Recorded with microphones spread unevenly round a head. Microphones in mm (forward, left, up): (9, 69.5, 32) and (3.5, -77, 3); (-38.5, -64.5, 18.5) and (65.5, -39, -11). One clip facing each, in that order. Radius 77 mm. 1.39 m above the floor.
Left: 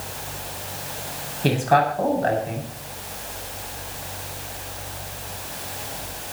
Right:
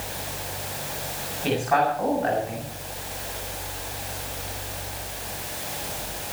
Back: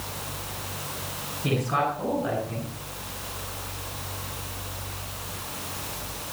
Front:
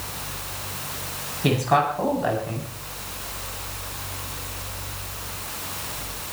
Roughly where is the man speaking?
Ahead left.